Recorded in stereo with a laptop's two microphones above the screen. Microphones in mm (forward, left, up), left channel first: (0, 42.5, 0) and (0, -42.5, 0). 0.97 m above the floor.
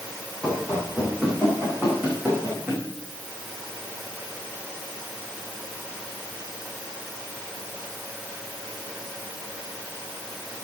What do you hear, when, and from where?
0.4 s running footsteps: 10° right (ahead or behind), 6 m; by 2.8 s 30° right (ahead or behind), 4.5 m